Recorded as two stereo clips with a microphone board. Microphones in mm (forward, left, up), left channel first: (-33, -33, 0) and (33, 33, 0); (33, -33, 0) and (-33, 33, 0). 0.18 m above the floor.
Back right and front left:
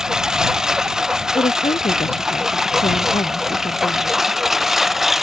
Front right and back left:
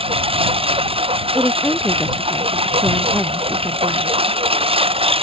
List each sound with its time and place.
0.0 s a lawn mower: 130° left
1.4 s a woman speaking: 140° right